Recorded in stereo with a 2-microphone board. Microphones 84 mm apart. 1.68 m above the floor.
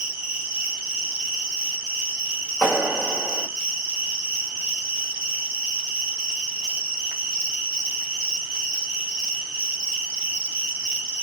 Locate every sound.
0.0 s an insect: 10° right (ahead or behind), 1.0 m
2.6 s a clap: 30° right (ahead or behind), 1.6 m